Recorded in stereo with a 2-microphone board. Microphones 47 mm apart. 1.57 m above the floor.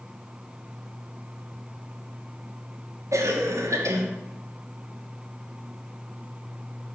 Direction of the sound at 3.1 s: 80° right.